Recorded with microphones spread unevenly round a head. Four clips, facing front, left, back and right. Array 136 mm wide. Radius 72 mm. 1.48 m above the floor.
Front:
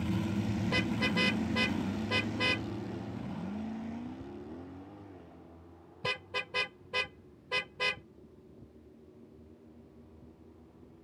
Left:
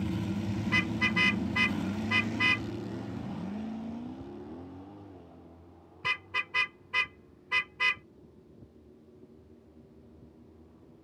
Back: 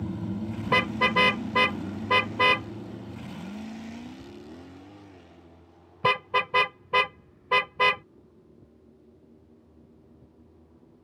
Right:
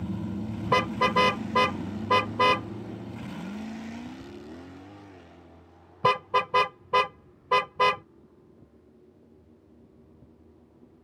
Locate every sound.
0.7 s a car horn: 125° right